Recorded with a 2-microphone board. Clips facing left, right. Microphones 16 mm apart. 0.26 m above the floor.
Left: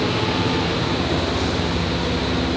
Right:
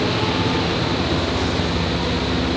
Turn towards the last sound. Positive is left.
No sound to turn to.